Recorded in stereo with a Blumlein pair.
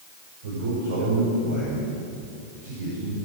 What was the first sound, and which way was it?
A man speaking, 60° right.